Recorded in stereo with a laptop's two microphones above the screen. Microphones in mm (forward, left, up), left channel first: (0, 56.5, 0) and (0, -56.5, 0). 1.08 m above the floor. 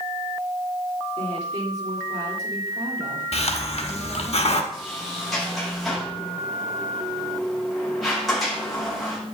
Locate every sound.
1.2 s a woman speaking: 80° right, 3.5 m
3.3 s a hiss: 70° left (ahead or behind), 1.0 m
4.7 s a sliding door: 5° left (ahead or behind), 6 m